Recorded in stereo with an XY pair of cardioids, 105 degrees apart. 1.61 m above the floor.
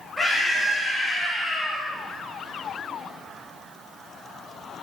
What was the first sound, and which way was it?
A scream, 10° right.